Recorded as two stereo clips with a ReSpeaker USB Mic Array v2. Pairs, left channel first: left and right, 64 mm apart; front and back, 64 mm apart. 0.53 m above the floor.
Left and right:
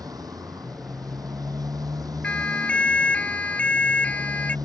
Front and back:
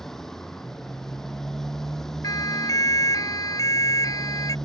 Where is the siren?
20° left.